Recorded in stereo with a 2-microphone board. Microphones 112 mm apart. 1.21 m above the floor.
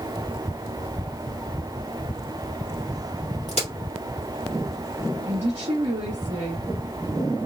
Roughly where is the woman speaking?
Right.